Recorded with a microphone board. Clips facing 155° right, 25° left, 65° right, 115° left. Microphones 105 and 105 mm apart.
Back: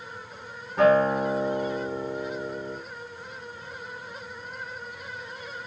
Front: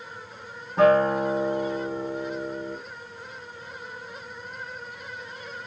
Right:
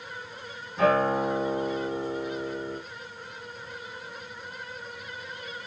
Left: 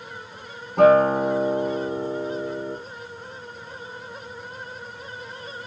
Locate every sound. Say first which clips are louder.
0.8 s a guitar: front 1 dB, left 8 dB; 90° left, 8.5 m